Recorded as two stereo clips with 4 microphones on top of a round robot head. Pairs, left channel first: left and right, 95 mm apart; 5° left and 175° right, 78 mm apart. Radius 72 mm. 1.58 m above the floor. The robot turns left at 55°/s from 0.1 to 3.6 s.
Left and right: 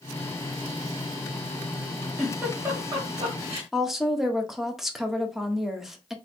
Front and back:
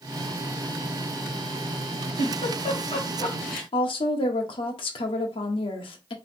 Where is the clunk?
I don't hear a clunk.